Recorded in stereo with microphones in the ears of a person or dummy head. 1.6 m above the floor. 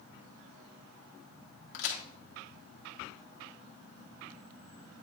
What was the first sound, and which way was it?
A crack, 70° left (ahead or behind).